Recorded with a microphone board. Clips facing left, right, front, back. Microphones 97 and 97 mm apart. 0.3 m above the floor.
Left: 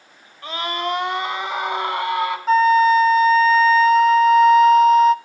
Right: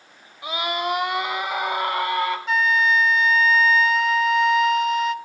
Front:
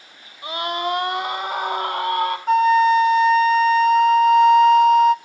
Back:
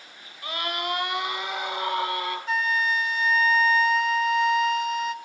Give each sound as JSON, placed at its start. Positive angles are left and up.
{"t": 0.4, "sound": "a scream", "azimuth_deg": -30, "distance_m": 1.3}
{"t": 2.5, "sound": "a flute", "azimuth_deg": 40, "distance_m": 0.5}